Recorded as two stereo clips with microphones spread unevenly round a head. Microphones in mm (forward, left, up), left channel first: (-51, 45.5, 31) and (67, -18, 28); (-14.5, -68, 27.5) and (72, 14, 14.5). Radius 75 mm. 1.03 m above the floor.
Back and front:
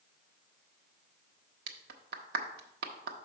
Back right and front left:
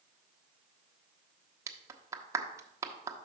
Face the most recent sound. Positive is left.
turn(degrees=-20)